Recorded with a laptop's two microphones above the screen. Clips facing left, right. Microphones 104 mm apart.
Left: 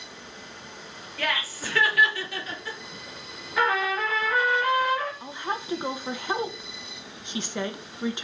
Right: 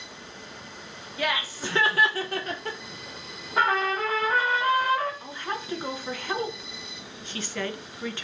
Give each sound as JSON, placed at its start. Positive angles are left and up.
{"t": 1.2, "sound": "laughter", "side_deg": -15, "distance_m": 1.1}
{"t": 3.6, "sound": "a trumpet", "side_deg": -35, "distance_m": 1.3}
{"t": 5.2, "sound": "a woman speaking", "side_deg": 20, "distance_m": 0.7}